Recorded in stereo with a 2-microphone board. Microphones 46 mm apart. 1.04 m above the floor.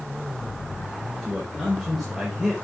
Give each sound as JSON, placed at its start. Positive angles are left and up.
{"t": 1.2, "sound": "a man speaking", "side_deg": -5, "distance_m": 4.0}